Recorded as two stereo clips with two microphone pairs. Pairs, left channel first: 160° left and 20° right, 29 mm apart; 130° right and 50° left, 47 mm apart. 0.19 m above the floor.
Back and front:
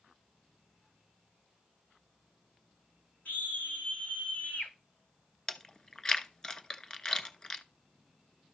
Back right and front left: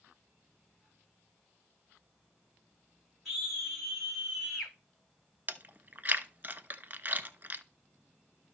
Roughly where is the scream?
Behind left.